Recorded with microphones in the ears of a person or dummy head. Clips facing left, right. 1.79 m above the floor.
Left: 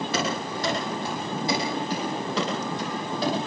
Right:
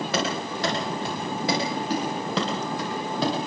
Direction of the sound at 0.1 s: 65° right (ahead or behind).